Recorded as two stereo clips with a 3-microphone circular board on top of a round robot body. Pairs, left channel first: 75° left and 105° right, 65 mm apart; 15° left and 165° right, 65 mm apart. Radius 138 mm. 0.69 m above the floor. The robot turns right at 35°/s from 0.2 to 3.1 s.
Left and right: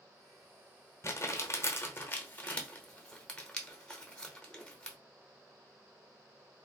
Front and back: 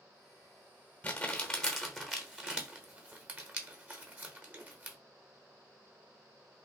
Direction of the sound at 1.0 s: 70° left.